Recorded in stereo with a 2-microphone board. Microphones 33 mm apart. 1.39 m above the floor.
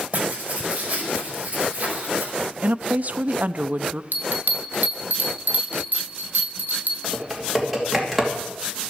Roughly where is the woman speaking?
Right.